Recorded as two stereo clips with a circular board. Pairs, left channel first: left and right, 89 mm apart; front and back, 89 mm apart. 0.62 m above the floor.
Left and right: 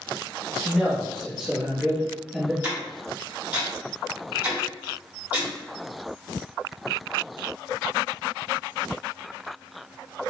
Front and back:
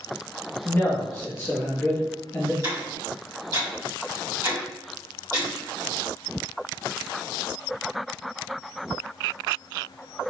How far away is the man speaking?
About 0.9 m.